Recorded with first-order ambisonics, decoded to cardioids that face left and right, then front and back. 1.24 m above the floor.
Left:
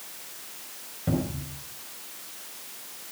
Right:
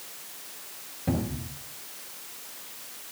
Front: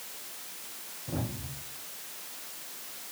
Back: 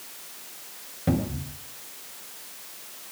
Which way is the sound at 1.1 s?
170° left.